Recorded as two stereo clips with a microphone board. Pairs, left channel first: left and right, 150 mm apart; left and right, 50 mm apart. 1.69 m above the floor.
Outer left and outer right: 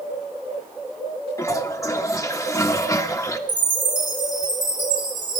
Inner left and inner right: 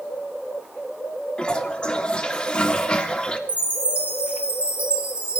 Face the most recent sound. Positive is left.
turn(degrees=-30)  # may be behind; listen again after turning